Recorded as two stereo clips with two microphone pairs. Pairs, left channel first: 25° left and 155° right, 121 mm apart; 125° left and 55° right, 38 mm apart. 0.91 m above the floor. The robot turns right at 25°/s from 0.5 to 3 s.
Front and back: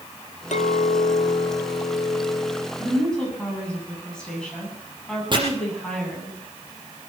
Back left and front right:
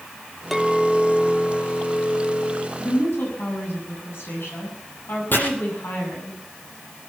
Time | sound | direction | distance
0.5 | a clink | 35° left | 0.9 m
2.8 | a woman speaking | 100° left | 8 m
5.3 | chopping | 155° left | 5.5 m